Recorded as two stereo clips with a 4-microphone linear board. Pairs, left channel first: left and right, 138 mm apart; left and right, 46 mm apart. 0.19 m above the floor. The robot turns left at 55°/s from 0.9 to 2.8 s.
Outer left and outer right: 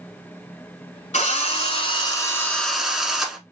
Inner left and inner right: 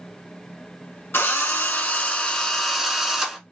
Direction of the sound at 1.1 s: 90° left.